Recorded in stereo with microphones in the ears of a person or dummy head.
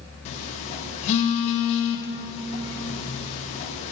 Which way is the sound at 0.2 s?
35° left (ahead or behind).